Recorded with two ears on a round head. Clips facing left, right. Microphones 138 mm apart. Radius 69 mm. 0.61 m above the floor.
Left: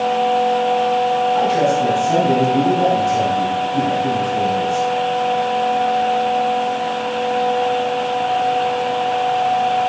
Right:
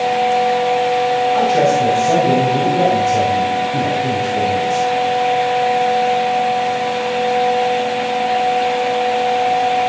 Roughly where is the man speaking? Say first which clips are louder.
Right 2 dB; right.